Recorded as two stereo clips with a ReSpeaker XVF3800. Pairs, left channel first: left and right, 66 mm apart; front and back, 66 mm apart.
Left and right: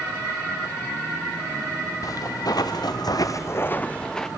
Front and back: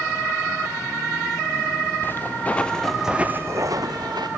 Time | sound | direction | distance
2.0 | footsteps | 60° left | 1.4 m